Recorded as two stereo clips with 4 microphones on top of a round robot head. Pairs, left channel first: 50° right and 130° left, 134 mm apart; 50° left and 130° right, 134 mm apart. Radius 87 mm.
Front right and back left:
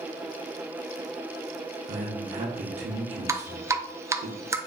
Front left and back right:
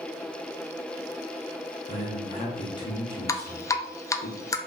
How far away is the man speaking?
About 1.0 m.